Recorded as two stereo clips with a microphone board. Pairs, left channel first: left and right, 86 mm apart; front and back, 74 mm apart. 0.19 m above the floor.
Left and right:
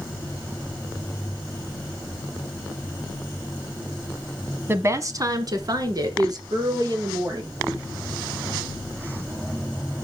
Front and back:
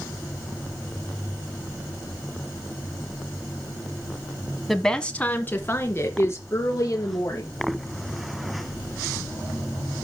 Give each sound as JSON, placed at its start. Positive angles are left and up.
{"t": 4.7, "sound": "a woman speaking", "azimuth_deg": -90, "distance_m": 1.1}